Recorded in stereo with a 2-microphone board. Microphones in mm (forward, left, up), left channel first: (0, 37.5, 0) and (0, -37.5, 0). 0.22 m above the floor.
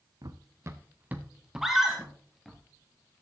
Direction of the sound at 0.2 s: 55° right (ahead or behind).